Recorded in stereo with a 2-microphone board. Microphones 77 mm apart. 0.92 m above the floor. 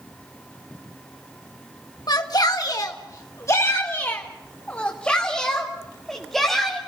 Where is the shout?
60° left (ahead or behind), 1.4 m; by 6.8 s centre (ahead or behind), 2.5 m.